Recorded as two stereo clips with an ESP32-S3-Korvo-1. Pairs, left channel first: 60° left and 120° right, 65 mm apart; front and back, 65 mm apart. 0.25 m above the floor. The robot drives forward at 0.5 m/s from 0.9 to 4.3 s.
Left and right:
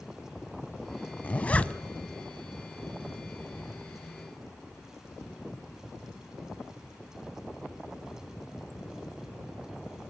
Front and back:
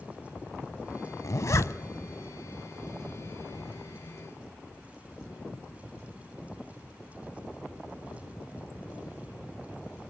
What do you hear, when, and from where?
1.2 s a zipper: straight ahead, 0.8 m